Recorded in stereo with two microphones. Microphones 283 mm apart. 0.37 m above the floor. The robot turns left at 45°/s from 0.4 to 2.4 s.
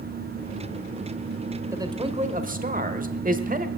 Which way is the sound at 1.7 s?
15° right.